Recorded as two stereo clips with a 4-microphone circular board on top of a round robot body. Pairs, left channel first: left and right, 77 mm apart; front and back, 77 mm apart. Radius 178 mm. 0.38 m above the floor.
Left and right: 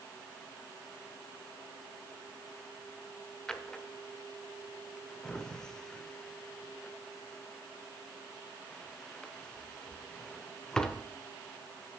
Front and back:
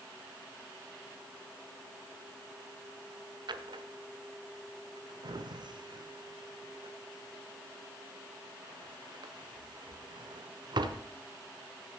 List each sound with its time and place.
3.5 s a drawer: 170° left, 1.1 m